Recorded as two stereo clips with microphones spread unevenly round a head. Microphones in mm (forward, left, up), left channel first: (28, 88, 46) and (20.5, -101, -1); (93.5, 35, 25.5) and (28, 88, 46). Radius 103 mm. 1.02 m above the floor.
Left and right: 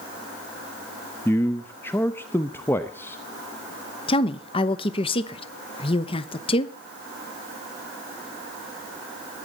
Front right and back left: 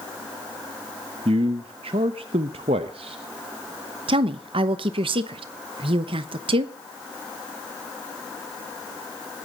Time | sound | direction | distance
1.2 | a man speaking | 170° left | 0.7 m
4.1 | a woman speaking | 155° left | 1.0 m